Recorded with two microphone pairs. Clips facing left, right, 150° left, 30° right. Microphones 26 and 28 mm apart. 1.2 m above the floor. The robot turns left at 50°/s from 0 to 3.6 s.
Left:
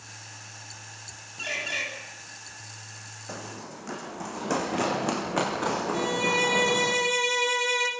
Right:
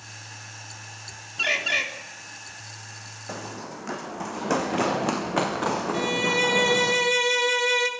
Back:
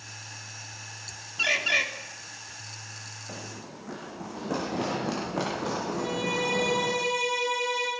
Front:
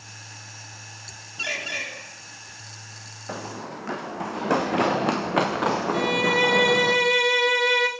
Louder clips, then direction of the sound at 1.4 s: Right 7 dB, back 4 dB; 130° right.